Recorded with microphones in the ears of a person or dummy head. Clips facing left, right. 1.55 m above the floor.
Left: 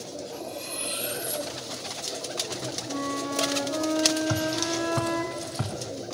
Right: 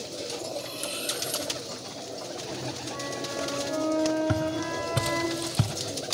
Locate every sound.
0.3 s cutlery clinking: 20° left (ahead or behind), 2.5 m
2.9 s a flute: 20° left (ahead or behind), 2 m
4.3 s footsteps: 30° right (ahead or behind), 1.8 m; by 5.7 s 40° right (ahead or behind), 2 m